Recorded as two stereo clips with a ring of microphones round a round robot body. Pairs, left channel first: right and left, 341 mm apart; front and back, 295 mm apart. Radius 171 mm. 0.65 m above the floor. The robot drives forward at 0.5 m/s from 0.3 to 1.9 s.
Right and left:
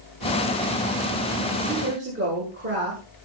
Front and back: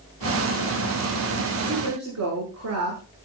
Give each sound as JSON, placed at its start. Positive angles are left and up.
{"t": 1.6, "sound": "a woman speaking", "azimuth_deg": 150, "distance_m": 8.0}